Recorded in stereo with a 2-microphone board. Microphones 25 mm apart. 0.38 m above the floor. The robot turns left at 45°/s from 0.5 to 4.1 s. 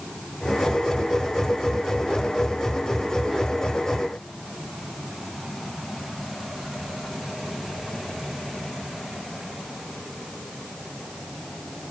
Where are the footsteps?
No footsteps in this recording.